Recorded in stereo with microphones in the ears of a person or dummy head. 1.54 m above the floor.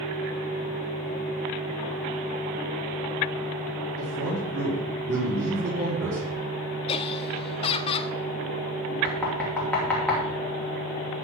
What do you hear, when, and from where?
4.0 s a man speaking: 65° right (ahead or behind), 5 m
6.9 s laughter: 30° left (ahead or behind), 0.9 m
9.0 s knocking: 10° left (ahead or behind), 3 m